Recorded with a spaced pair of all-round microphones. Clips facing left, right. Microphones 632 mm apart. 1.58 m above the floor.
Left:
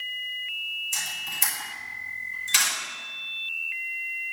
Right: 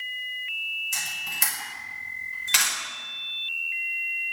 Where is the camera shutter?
80° right, 6 m.